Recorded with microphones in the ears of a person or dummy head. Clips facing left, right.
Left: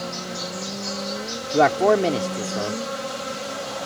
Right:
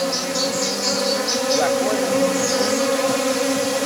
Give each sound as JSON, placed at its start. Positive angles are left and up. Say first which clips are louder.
{"t": 0.0, "sound": "an insect", "louder": "right 9 dB", "side_deg": -80}
{"t": 1.5, "sound": "a man speaking", "louder": "left 4 dB", "side_deg": 65}